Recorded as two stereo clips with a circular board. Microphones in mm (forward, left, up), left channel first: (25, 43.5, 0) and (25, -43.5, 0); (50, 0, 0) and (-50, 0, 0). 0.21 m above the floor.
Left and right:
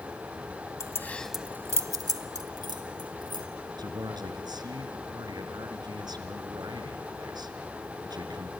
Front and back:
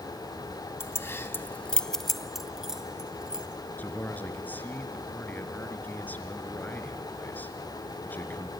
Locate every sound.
0.8 s keys jangling: 55° left, 0.9 m; by 3.5 s 100° right, 2.5 m
3.8 s a man speaking: 70° right, 3.5 m